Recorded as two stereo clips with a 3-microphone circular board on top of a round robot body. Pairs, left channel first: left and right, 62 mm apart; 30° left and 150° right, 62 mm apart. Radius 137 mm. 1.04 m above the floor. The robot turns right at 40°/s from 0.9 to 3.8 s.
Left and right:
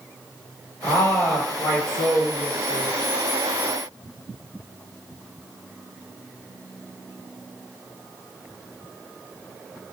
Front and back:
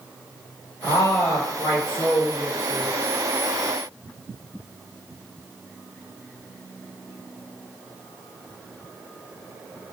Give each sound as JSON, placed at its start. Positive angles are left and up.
{"t": 0.8, "sound": "a woman speaking", "azimuth_deg": 65, "distance_m": 1.3}